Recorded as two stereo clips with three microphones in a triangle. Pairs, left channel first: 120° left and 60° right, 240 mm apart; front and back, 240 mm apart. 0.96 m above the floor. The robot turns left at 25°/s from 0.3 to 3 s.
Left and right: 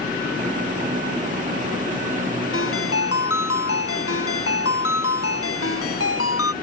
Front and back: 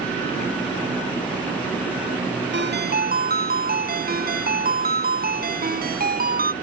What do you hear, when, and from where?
2.5 s a ringtone: 145° left; by 6.5 s 130° left